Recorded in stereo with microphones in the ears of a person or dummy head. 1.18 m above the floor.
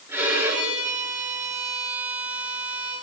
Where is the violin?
10° right (ahead or behind), 7.5 m.